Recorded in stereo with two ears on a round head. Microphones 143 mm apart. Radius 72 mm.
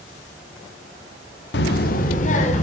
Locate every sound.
1.5 s a child speaking: 75° left (ahead or behind), 1.0 m; by 2.6 s 45° left (ahead or behind), 2.5 m